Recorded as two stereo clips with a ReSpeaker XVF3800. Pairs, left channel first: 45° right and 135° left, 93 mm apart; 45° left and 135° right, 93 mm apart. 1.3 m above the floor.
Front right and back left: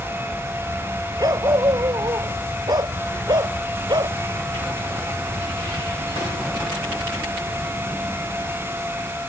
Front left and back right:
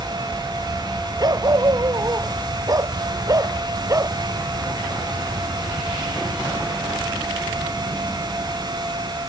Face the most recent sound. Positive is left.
turn(degrees=170)